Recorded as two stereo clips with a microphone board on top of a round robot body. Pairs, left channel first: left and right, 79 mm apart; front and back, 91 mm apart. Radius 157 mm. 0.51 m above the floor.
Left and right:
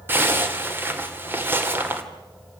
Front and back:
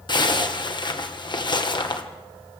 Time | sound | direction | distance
0.1 | a zipper | 30° right | 2.5 m